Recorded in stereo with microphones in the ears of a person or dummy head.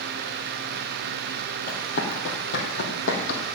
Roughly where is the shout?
I don't hear a shout.